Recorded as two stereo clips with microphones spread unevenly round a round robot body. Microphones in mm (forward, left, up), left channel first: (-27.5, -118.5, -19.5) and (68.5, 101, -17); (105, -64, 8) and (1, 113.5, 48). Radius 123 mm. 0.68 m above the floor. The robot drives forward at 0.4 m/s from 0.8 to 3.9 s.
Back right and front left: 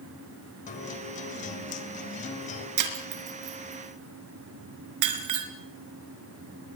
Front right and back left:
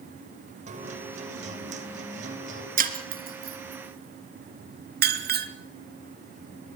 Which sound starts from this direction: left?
Breaking glass, at 2.8 s.